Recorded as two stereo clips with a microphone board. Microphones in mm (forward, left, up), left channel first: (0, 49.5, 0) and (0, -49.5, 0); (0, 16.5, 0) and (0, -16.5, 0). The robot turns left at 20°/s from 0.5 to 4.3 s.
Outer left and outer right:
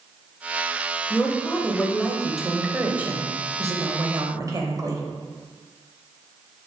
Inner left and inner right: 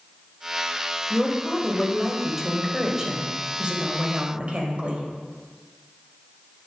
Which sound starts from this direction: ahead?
A woman speaking, at 1.1 s.